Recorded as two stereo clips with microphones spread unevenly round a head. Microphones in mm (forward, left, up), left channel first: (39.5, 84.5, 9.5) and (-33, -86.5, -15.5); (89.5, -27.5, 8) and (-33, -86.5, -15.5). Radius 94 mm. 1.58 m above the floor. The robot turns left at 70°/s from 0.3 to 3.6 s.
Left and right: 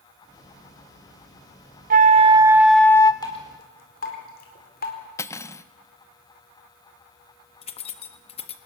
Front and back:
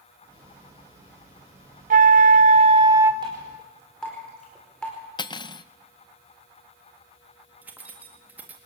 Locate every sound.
1.9 s a flute: 155° right, 0.7 m; by 3.1 s 120° left, 0.7 m
3.2 s dripping: 135° left, 4.5 m; by 5.0 s 110° left, 4.5 m
5.2 s cutlery clinking: 10° left, 0.8 m
7.6 s keys jangling: 120° left, 1.5 m